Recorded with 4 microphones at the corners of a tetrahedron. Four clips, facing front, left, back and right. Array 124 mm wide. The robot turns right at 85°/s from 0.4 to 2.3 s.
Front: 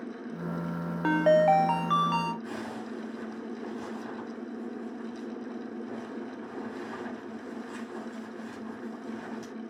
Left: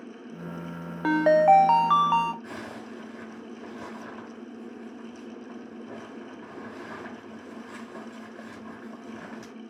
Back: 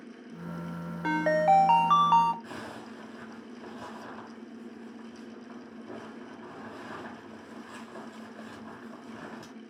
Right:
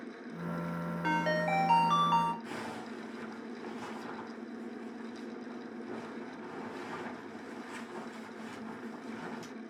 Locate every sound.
1.0 s a ringtone: 50° left, 0.5 m; by 2.3 s 160° left, 0.5 m
2.4 s a zipper: 115° left, 6 m